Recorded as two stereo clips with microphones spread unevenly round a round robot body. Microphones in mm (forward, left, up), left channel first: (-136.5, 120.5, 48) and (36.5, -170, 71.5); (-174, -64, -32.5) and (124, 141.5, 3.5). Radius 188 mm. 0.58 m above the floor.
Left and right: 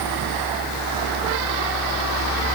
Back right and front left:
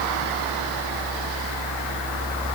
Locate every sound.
Only background noise.